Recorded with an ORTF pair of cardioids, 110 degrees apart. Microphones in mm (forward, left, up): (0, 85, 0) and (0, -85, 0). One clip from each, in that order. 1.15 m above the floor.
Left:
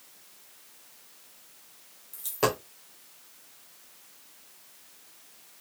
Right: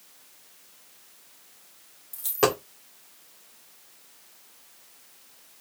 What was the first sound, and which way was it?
A dropped coin, 25° right.